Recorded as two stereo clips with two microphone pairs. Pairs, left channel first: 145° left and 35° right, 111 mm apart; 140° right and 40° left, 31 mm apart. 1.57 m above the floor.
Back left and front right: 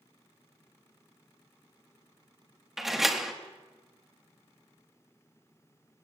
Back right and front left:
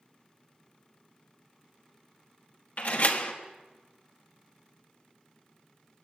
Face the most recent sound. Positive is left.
turn(degrees=-125)